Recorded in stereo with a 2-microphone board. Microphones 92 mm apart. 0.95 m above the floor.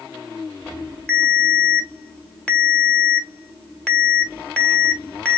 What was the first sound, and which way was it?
A ringtone, 15° left (ahead or behind).